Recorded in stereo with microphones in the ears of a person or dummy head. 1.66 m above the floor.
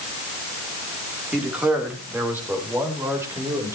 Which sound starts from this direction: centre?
A man speaking, at 1.3 s.